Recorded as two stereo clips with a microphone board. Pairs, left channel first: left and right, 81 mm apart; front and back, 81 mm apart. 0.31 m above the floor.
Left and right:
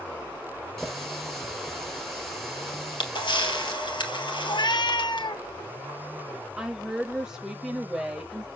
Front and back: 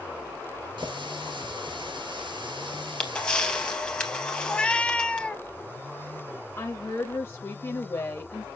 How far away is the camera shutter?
About 2.5 m.